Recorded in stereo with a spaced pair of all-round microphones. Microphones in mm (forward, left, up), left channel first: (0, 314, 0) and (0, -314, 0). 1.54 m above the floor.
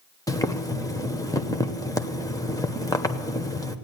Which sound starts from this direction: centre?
Boiling, at 0.3 s.